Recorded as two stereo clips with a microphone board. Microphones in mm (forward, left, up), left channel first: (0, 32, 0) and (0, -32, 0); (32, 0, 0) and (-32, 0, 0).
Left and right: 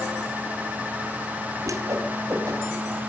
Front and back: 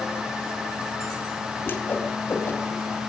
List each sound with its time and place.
1.6 s a whoosh: 55° right, 3.5 m